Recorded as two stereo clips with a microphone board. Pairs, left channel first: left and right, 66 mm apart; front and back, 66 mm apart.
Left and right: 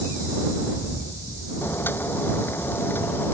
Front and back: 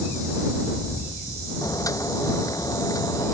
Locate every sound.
1.6 s boiling: 30° left